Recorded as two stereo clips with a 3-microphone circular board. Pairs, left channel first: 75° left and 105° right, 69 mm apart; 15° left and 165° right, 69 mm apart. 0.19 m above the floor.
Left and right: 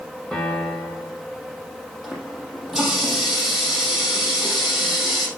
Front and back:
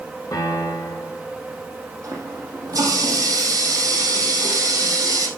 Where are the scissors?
No scissors in this recording.